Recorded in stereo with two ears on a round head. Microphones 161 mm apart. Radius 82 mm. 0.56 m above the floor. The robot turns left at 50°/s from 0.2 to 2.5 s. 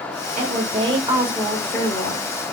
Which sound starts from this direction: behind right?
A woman speaking, at 0.4 s.